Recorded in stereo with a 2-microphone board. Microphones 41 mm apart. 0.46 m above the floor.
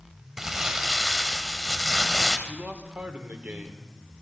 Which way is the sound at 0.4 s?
10° right (ahead or behind).